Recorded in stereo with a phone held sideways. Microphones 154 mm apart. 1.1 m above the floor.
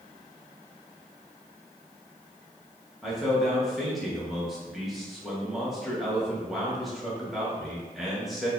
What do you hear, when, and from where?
3.0 s a man speaking: centre (ahead or behind), 1.2 m